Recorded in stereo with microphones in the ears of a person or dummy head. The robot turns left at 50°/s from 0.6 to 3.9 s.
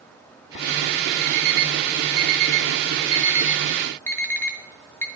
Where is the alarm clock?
50° right (ahead or behind), 0.9 m; by 5.0 s 10° left (ahead or behind), 0.9 m.